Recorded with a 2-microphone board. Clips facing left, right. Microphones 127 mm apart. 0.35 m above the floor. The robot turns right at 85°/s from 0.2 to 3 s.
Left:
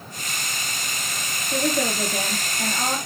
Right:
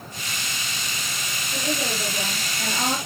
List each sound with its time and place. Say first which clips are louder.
1.5 s a woman speaking: left 5 dB; 60° left, 5.5 m; by 3.0 s 175° right, 5.5 m